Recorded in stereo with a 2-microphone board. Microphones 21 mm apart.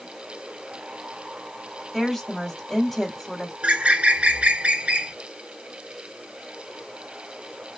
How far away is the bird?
About 0.6 m.